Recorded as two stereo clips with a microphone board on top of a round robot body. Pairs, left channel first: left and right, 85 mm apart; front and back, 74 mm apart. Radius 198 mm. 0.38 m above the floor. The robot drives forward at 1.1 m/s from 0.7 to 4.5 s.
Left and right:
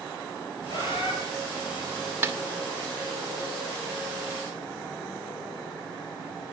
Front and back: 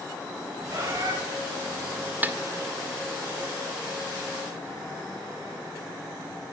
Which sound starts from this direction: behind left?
A bird, at 0.7 s.